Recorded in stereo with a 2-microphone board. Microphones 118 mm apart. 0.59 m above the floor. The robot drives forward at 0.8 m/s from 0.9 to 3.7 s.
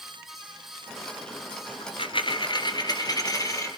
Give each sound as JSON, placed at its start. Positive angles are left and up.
{"t": 1.8, "sound": "a dropped coin", "side_deg": 55, "distance_m": 1.5}